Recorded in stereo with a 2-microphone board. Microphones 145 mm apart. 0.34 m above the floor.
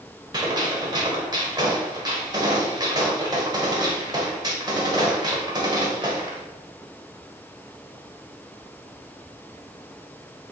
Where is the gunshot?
30° right (ahead or behind), 1.6 m.